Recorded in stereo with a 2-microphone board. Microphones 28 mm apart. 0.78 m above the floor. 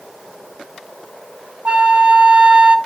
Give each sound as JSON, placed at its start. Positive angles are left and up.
{"t": 1.6, "sound": "a flute", "side_deg": -30, "distance_m": 0.9}